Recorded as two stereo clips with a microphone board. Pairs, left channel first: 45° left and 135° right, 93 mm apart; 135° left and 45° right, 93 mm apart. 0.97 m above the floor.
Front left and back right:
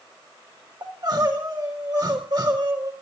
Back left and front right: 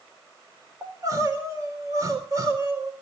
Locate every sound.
0.8 s crying: 95° right, 3.5 m